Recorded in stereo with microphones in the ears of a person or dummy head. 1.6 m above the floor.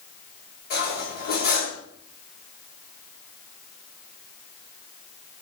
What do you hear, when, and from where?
0.7 s cutlery clinking: 50° left (ahead or behind), 2 m